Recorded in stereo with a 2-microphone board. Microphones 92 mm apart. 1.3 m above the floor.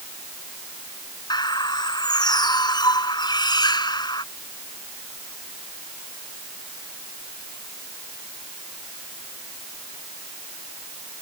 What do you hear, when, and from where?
1.3 s a bird: 50° left (ahead or behind)